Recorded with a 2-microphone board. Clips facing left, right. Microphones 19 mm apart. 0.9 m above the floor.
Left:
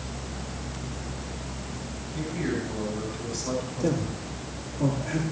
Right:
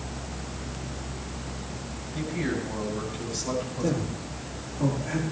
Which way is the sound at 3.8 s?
5° left (ahead or behind).